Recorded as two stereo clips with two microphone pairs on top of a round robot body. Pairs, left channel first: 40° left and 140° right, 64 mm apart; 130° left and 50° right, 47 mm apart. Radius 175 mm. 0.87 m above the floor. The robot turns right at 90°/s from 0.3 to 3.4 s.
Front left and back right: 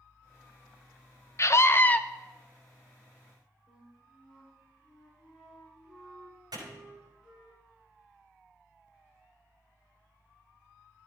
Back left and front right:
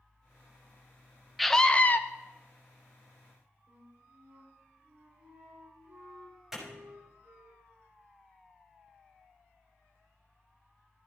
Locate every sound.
1.4 s a scream: 40° left, 0.9 m; by 2.0 s 95° left, 0.9 m
3.7 s a flute: 55° right, 3.5 m
6.5 s a clap: 130° right, 6 m